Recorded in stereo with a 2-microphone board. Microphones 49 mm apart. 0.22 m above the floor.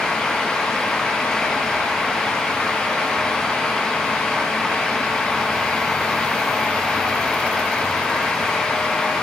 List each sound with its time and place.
Only background noise.